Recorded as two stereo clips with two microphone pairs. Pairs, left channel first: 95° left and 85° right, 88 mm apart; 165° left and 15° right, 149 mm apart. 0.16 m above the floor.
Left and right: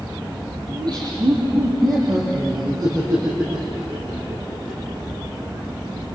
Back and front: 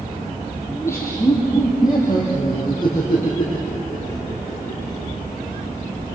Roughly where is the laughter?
Behind right.